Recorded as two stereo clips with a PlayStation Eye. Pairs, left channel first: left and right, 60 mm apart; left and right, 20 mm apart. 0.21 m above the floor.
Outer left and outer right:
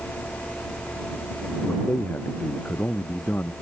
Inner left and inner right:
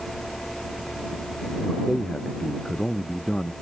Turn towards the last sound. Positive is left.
turn(degrees=30)  # may be behind; listen again after turning